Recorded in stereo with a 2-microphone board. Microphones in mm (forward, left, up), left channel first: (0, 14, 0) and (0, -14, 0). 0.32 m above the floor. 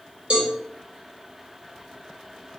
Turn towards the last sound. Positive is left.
turn(degrees=-40)  # may be behind; listen again after turning